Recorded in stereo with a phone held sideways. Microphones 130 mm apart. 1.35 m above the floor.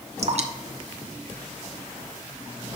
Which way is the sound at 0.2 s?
55° right (ahead or behind).